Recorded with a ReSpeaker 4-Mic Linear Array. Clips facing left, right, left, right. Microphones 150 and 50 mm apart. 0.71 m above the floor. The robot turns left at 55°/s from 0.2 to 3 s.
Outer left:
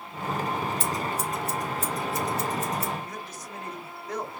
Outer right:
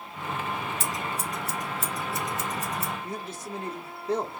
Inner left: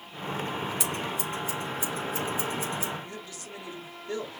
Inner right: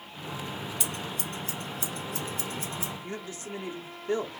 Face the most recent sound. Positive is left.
turn(degrees=-25)  # may be behind; listen again after turning